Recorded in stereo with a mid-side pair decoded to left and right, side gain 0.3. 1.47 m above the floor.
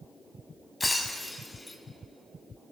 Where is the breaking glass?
30° left, 4 m.